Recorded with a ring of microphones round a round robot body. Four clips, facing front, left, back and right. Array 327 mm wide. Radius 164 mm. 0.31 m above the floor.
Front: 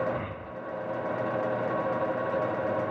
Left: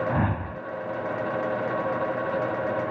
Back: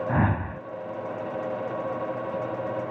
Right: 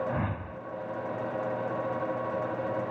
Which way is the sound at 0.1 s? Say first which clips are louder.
Left 6 dB, back 8 dB; 155° left.